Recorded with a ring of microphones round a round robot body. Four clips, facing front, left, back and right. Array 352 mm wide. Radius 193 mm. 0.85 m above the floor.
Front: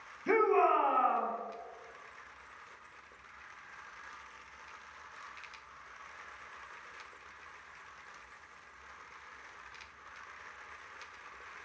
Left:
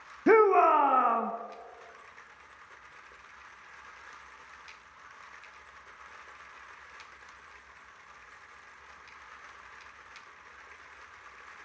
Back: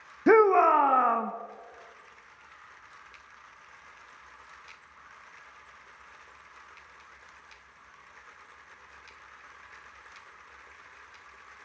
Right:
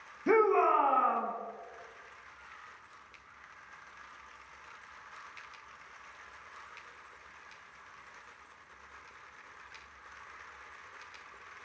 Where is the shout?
155° left, 0.9 m.